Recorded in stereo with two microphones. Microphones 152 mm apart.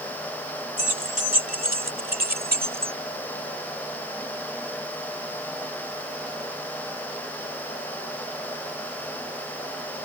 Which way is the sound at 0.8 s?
65° right (ahead or behind).